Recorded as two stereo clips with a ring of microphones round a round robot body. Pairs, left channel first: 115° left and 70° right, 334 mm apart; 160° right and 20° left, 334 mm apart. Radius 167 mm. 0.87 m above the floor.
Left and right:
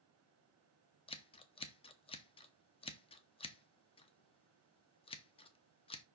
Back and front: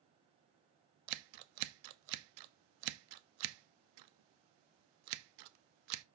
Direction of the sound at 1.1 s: 35° left.